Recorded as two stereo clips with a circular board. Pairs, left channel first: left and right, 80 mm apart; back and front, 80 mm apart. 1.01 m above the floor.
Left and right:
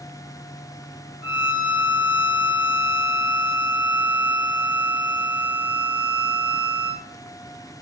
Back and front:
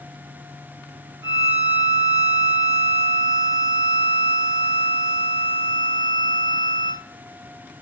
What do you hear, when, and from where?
1.2 s a violin: 15° right, 1.3 m